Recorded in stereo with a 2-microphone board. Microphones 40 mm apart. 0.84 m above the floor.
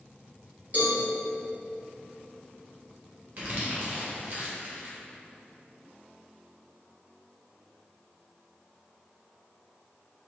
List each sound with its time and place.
0.7 s a cowbell: 40° right (ahead or behind), 1.6 m
3.4 s crumpling: 50° right (ahead or behind), 1.4 m